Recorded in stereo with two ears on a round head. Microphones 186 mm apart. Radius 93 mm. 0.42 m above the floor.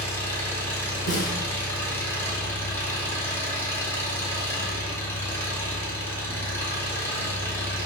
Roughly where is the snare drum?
Left.